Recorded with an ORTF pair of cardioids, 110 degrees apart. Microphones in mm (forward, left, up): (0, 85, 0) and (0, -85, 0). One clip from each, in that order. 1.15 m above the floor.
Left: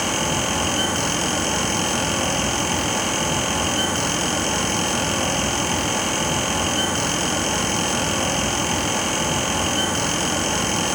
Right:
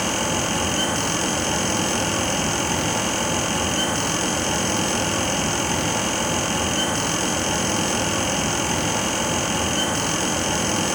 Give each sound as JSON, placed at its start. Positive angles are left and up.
{"t": 0.0, "sound": "a fan", "azimuth_deg": 0, "distance_m": 3.5}